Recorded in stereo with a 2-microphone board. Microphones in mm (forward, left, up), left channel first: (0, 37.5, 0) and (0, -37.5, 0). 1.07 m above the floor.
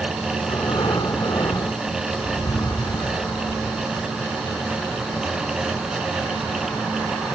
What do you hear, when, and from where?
0.4 s breathing: 65° left (ahead or behind), 1.7 m